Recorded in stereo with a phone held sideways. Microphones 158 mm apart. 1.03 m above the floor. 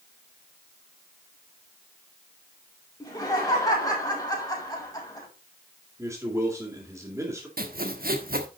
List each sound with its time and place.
3.0 s laughter: 25° left (ahead or behind), 5.5 m
6.0 s a man speaking: 15° right (ahead or behind), 3.5 m
7.6 s sawing: 70° right (ahead or behind), 1.4 m